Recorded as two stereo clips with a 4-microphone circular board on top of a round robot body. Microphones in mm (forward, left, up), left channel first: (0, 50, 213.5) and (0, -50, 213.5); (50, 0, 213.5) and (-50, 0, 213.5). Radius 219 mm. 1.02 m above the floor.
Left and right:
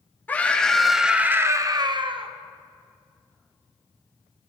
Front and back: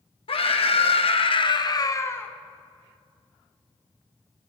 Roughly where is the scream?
Ahead.